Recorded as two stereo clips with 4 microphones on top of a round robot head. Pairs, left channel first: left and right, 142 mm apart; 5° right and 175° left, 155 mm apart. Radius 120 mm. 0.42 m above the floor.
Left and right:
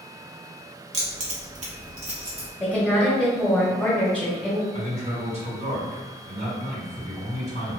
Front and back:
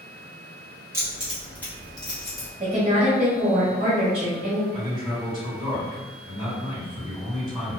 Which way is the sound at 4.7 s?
95° right.